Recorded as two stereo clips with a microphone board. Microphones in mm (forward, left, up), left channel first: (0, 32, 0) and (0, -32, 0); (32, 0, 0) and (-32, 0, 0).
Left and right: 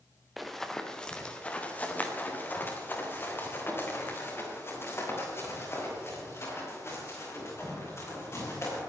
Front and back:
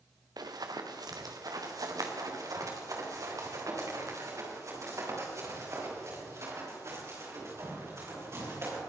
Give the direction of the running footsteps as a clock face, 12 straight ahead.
6 o'clock.